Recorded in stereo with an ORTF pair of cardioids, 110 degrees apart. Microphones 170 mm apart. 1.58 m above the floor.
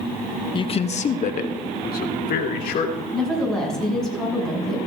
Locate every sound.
0.5 s a man speaking: 25° left, 0.7 m; by 3.0 s 65° left, 2.5 m
3.1 s a woman speaking: 5° left, 7.5 m